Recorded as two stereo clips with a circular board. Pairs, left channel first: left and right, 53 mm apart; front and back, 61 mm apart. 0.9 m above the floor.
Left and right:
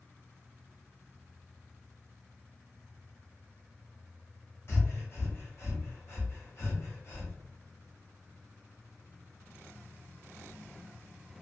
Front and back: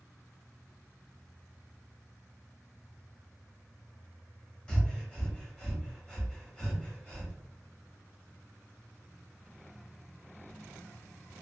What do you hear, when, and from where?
4.7 s breathing: 70° left, 1.1 m